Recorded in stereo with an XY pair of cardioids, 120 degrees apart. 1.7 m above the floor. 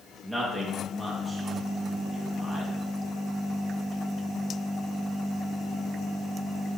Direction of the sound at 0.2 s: 5° right.